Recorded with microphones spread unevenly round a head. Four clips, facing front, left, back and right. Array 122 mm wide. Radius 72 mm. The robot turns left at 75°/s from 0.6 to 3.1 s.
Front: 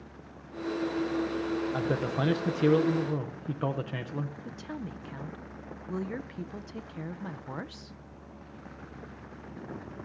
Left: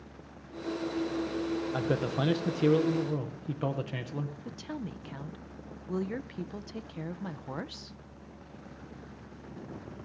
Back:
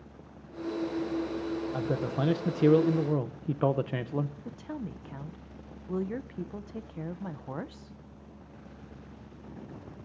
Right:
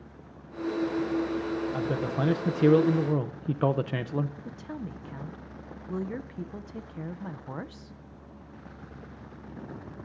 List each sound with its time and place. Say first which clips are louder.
1.7 s a man speaking: right 1 dB, front 1 dB; 5° left, 0.6 m; by 4.3 s 100° right, 0.6 m
4.5 s a woman speaking: right 1 dB, back 1 dB; 40° right, 0.5 m